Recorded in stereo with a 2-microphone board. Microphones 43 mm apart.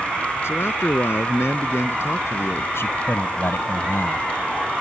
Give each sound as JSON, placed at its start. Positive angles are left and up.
{"t": 0.4, "sound": "a man speaking", "side_deg": 75}
{"t": 2.8, "sound": "a man speaking", "side_deg": 75}